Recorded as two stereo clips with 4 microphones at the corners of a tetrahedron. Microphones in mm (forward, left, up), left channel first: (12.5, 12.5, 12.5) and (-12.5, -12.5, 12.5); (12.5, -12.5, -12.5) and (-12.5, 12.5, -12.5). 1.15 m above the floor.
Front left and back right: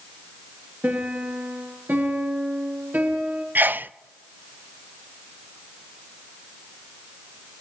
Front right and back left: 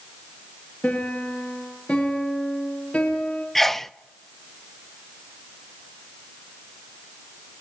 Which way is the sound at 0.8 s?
105° right.